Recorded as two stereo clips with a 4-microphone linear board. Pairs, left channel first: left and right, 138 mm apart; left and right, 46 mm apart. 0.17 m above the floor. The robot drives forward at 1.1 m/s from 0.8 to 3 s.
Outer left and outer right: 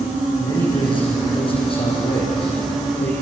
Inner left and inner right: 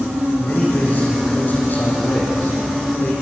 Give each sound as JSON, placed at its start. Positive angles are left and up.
{"t": 0.4, "sound": "a man speaking", "side_deg": 35, "distance_m": 8.0}